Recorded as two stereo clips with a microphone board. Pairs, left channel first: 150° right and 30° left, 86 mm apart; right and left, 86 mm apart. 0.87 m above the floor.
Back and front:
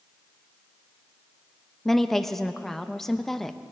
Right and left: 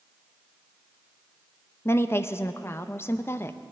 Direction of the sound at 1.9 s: 65° right.